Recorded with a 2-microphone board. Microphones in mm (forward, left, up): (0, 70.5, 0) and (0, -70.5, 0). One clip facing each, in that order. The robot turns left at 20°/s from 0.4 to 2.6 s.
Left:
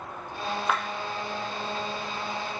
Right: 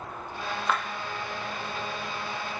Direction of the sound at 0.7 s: 10° left (ahead or behind).